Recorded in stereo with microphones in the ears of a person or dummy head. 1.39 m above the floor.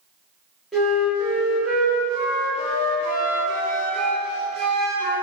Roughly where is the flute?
Centre.